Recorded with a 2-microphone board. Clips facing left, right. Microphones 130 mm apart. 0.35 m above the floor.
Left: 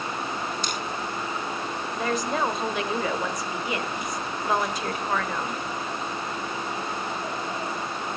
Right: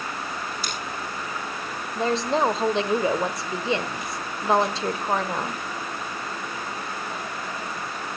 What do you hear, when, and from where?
0.6 s scissors: 5° right (ahead or behind), 8.5 m
1.9 s a woman speaking: 30° right (ahead or behind), 1.1 m